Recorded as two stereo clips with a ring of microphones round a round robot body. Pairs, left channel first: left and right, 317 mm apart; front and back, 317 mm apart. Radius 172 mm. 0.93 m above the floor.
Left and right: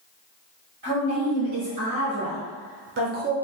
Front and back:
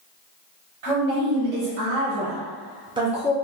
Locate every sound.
0.8 s a woman speaking: 150° right, 1.4 m; by 3.4 s 65° right, 0.5 m